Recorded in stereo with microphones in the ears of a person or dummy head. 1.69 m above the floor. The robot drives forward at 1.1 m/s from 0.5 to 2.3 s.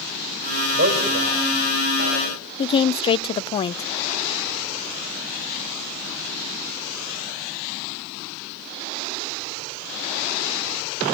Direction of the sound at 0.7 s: 40° right (ahead or behind).